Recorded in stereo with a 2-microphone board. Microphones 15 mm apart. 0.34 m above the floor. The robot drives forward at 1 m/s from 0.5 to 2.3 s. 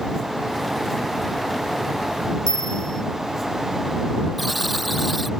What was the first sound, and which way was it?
A bell, 40° left (ahead or behind).